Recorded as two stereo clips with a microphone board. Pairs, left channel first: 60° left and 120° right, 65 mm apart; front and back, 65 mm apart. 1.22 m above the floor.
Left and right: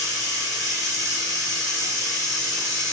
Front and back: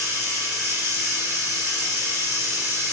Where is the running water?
140° right, 1.8 m.